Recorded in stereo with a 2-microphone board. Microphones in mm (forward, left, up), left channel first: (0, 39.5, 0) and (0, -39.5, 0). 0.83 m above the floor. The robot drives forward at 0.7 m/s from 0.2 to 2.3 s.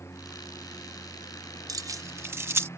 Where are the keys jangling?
50° right (ahead or behind); by 2.7 s 35° right (ahead or behind).